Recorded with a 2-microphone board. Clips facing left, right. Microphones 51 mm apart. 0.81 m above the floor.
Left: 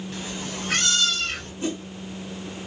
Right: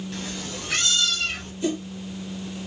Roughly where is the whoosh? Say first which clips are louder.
Right 3 dB; left.